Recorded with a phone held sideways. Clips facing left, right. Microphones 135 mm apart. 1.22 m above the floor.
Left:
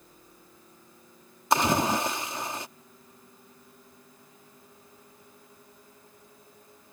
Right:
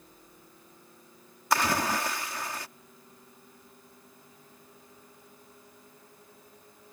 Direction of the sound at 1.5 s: 25° left (ahead or behind).